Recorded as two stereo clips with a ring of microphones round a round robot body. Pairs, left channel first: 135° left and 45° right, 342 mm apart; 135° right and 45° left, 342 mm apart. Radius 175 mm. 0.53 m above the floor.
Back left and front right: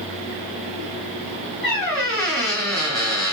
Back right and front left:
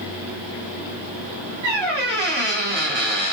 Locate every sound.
1.6 s a squeak: 45° left, 1.3 m